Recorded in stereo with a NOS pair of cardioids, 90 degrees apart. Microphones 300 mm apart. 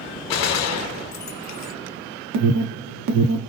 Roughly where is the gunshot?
Ahead left.